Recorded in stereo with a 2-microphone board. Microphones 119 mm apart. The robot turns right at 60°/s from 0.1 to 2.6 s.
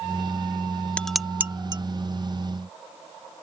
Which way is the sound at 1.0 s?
10° left (ahead or behind).